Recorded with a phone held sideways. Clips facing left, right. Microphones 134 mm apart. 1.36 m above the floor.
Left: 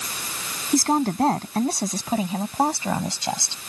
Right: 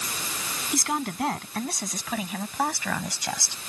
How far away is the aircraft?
I don't hear an aircraft.